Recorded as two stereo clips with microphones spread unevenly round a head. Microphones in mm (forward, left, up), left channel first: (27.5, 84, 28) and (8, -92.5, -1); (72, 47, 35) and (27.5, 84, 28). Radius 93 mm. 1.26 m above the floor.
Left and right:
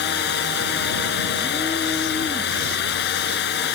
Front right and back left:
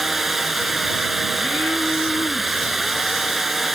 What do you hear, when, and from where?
0.0 s running water: 55° left